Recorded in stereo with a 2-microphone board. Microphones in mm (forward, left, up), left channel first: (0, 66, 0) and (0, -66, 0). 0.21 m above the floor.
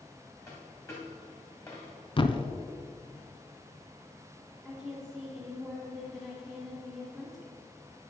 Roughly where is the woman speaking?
Centre.